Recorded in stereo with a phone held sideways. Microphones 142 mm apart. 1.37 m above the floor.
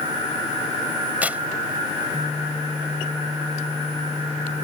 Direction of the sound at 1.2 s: 10° right (ahead or behind).